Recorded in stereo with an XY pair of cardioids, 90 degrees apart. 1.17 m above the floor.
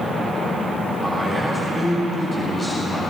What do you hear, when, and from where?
1.0 s a man speaking: 10° right, 9 m